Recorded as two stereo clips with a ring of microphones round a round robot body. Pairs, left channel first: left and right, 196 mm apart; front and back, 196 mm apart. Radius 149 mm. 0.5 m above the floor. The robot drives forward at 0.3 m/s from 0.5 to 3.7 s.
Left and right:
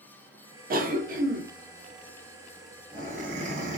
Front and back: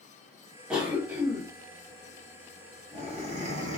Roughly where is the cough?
Right.